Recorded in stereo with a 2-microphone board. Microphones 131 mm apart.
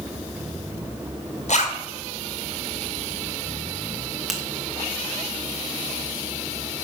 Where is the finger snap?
Centre (ahead or behind), 1.4 m.